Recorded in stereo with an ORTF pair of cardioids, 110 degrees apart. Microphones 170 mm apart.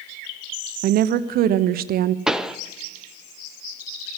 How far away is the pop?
About 0.6 m.